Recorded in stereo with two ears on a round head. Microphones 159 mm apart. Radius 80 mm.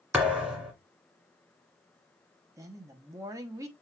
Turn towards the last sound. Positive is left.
turn(degrees=-20)  # may be behind; listen again after turning